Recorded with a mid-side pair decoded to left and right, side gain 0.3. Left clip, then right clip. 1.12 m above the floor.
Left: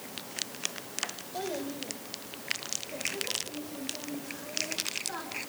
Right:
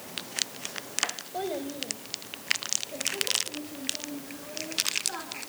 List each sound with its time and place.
1.3 s a child speaking: 30° right, 4 m; by 5.4 s straight ahead, 9 m